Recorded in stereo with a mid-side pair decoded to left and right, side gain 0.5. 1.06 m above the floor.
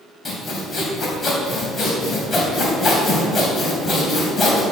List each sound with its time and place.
0.2 s sawing: 35° left, 3.5 m